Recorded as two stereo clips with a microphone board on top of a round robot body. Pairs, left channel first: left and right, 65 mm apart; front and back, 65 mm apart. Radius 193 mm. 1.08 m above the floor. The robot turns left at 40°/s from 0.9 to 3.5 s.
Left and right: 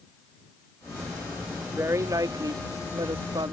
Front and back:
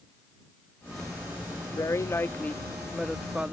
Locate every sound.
1.6 s a woman speaking: 35° right; by 3.5 s 110° right